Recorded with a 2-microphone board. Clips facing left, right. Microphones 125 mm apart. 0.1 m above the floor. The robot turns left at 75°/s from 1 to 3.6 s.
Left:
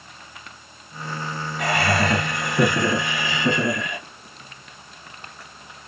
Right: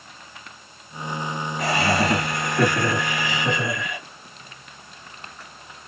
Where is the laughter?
120° right, 2 m; by 4.0 s 90° left, 2 m.